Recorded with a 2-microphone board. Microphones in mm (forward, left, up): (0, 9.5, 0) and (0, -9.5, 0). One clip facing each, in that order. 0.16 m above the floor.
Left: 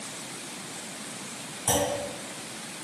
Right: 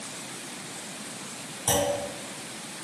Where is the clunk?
30° right (ahead or behind), 1.5 m.